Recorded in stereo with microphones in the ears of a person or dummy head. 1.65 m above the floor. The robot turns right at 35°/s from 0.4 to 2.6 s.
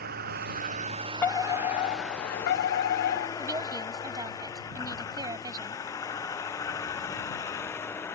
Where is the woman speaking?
20° right (ahead or behind).